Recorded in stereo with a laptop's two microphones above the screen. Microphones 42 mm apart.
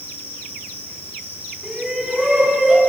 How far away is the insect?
About 6.5 m.